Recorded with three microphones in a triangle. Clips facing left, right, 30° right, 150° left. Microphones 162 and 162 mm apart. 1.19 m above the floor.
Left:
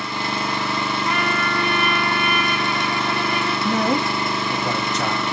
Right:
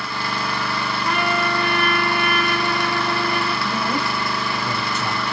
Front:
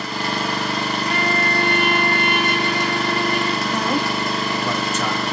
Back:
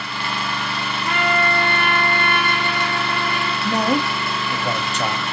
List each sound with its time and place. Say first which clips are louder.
0.0 s an engine running: left 1 dB, front 3 dB; 20° left, 0.7 m
1.1 s a trumpet: right 1 dB, back 4 dB; 175° right, 1.4 m
3.6 s a man speaking: left 4 dB, back 1 dB; 90° left, 1.1 m